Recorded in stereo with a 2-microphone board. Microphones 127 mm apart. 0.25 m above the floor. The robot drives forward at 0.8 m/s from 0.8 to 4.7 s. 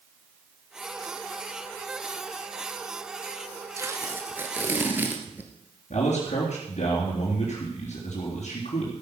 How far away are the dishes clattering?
No dishes clattering in this recording.